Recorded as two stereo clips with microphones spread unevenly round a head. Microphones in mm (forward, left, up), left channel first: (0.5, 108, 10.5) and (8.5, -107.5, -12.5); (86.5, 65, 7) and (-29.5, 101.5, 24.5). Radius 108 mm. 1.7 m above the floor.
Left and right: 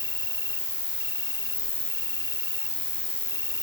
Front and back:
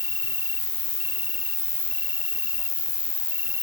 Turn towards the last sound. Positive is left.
turn(degrees=25)